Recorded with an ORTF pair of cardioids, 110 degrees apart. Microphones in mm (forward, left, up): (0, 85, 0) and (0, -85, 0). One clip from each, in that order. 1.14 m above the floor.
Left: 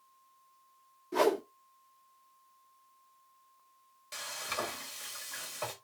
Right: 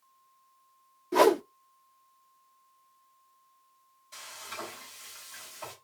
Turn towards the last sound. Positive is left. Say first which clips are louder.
# left 4 dB
turn(degrees=65)